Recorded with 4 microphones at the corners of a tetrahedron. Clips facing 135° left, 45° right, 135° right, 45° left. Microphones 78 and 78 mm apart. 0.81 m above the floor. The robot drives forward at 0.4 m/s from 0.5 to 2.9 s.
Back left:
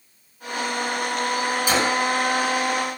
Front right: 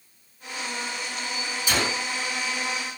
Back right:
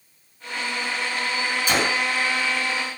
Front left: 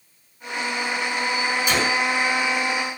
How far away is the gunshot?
About 1.2 m.